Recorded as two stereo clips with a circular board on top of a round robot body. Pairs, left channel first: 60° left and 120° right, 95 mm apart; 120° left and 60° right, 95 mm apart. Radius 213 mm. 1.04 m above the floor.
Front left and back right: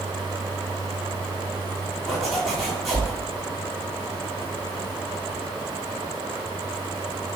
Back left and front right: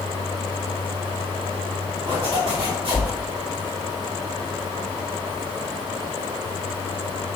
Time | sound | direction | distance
2.1 | a zipper | 30° right | 3 m